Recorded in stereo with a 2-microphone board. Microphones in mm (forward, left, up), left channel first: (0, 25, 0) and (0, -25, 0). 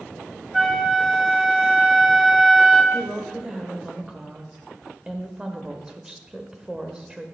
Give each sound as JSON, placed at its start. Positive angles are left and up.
{"t": 0.5, "sound": "a flute", "side_deg": 0, "distance_m": 0.8}
{"t": 2.9, "sound": "a woman speaking", "side_deg": -15, "distance_m": 1.1}